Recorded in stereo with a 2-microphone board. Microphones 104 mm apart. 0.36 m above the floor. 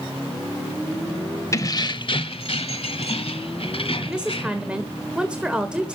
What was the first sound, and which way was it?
Keys jangling, 30° left (ahead or behind).